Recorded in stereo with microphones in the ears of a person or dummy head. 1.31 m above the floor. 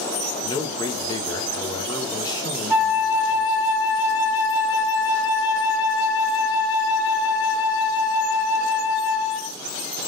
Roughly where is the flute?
Centre.